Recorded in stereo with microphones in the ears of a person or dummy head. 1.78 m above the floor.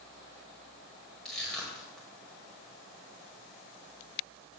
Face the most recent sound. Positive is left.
turn(degrees=5)  # may be behind; listen again after turning